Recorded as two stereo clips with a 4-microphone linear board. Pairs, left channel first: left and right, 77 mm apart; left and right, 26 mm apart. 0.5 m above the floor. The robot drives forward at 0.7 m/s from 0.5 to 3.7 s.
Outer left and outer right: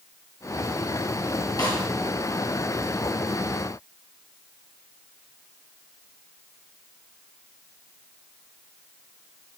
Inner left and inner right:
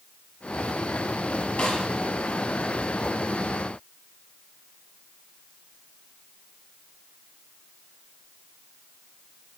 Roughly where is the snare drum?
Left.